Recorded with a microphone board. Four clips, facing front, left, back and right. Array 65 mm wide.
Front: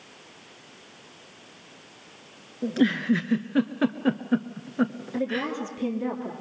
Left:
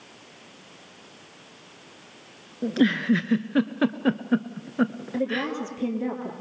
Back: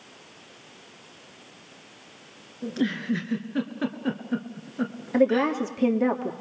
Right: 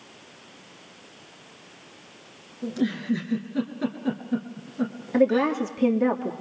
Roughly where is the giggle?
Ahead left.